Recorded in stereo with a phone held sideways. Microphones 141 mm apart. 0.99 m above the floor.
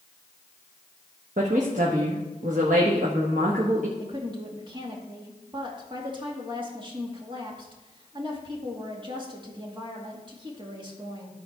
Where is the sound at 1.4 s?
60° right (ahead or behind), 1.3 m.